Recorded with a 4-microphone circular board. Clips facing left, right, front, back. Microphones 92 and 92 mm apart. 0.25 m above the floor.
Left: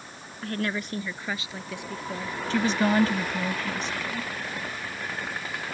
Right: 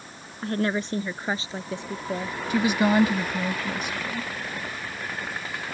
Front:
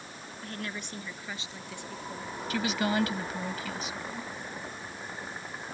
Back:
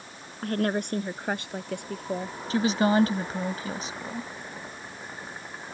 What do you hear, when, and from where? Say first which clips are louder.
0.4 s a woman speaking: right 4 dB, back 13 dB; 150° right; by 2.4 s 145° right
2.5 s a woman speaking: right 2 dB, back 7 dB; 160° right